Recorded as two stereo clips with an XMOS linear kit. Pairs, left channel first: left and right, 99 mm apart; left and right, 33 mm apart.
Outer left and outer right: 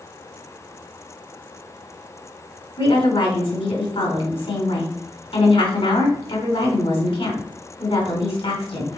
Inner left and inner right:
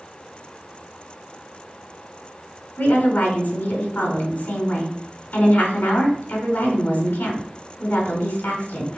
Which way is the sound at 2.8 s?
70° left (ahead or behind).